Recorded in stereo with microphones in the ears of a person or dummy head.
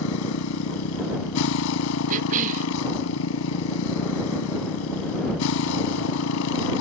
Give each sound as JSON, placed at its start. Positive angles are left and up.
{"t": 0.0, "sound": "a motorcycle", "side_deg": 70}
{"t": 2.1, "sound": "a cough", "side_deg": -40}